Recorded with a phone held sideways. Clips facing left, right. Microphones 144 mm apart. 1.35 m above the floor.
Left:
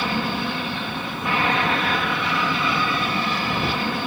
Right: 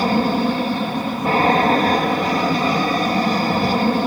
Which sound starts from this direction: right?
An aircraft, at 0.0 s.